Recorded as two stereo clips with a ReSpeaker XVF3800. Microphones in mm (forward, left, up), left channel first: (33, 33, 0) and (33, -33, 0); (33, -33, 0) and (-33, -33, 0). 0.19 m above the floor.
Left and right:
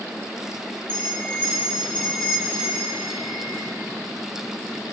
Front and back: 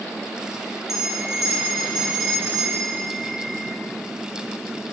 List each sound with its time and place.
0.9 s a bell: 110° left, 0.9 m